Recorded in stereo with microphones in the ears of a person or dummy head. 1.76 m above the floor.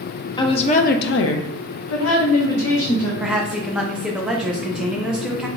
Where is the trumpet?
No trumpet in this recording.